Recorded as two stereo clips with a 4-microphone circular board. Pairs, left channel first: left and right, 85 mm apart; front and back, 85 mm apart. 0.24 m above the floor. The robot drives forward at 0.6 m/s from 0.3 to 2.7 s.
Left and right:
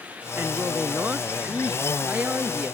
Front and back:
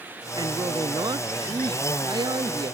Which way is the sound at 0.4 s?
155° right.